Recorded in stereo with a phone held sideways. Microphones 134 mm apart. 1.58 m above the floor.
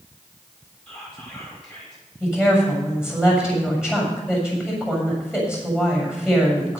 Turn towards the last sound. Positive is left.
turn(degrees=-5)  # may be behind; listen again after turning